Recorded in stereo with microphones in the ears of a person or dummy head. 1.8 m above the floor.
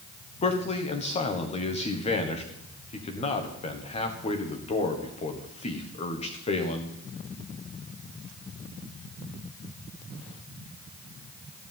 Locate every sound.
0.4 s a man speaking: 35° left (ahead or behind), 1.6 m